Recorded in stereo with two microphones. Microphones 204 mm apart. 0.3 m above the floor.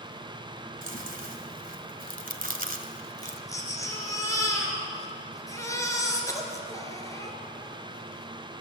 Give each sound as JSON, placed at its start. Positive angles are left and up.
{"t": 0.8, "sound": "chewing", "side_deg": -45, "distance_m": 1.9}
{"t": 3.2, "sound": "a baby crying", "side_deg": 15, "distance_m": 3.5}